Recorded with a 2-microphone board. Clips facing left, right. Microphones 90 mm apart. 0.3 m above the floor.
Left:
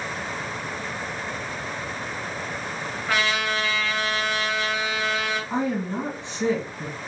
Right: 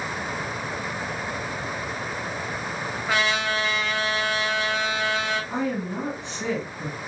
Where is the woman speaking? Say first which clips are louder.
Left 2 dB; 20° left (ahead or behind), 1.7 m.